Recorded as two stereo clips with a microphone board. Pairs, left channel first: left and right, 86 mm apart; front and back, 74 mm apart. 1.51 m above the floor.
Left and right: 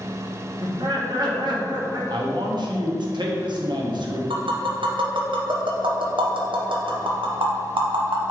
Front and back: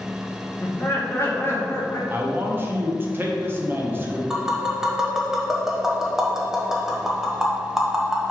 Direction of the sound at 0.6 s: 55° right.